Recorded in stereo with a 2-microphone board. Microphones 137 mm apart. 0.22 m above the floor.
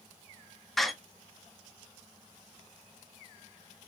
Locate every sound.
0.8 s a door slam: centre (ahead or behind), 0.9 m